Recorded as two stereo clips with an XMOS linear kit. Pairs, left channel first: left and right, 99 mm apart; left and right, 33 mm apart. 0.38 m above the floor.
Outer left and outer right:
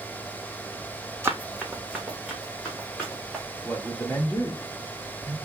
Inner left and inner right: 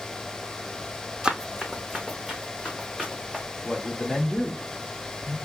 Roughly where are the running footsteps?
Right.